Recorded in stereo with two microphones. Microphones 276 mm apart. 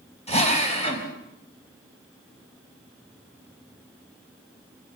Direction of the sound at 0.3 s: 20° left (ahead or behind).